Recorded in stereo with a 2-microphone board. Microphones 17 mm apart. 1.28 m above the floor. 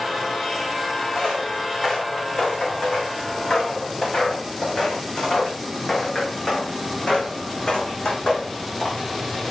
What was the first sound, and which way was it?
Footsteps, 55° left (ahead or behind).